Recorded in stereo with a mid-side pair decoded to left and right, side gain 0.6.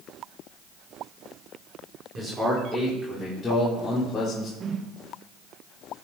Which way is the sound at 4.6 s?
40° right.